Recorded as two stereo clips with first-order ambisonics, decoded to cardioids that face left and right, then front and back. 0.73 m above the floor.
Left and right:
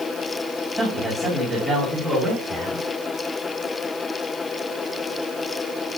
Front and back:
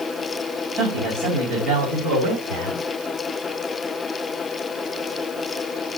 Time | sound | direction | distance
0.8 | a man speaking | 175° left | 4 m